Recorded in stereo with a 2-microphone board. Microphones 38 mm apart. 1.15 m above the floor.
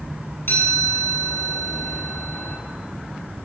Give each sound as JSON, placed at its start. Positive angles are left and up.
{"t": 0.5, "sound": "a chime", "side_deg": 75, "distance_m": 10.0}